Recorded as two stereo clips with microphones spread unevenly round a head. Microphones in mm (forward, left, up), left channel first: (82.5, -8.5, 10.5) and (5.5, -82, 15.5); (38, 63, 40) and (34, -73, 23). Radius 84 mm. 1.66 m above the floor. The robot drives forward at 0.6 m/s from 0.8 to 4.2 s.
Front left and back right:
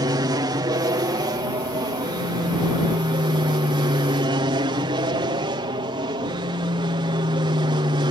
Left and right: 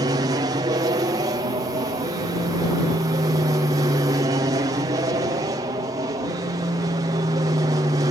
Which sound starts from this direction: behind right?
An aircraft, at 0.0 s.